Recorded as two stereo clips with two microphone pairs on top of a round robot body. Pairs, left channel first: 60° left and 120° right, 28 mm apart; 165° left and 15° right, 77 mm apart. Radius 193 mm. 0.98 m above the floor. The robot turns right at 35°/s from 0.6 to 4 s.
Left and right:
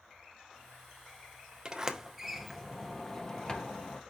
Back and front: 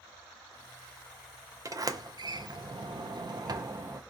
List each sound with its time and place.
1.6 s a sliding door: 55° right, 0.6 m; by 4.0 s 30° left, 0.6 m